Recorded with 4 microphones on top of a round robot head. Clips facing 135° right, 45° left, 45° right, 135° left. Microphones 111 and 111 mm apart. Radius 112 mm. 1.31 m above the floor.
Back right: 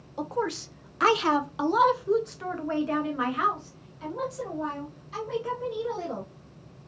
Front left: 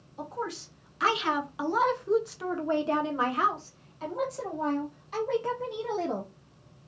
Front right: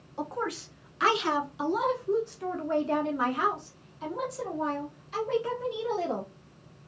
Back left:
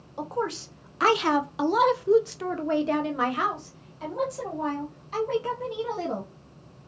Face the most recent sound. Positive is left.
turn(degrees=85)